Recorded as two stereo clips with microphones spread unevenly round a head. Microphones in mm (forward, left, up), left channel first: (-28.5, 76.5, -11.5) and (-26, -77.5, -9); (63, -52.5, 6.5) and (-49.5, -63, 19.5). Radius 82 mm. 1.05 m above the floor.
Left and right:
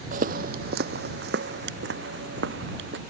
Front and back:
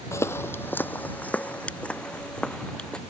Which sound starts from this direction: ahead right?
Footsteps, at 0.1 s.